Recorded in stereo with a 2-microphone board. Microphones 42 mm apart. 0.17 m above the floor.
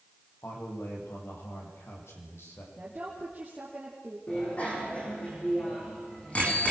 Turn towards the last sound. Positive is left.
turn(degrees=30)  # may be behind; listen again after turning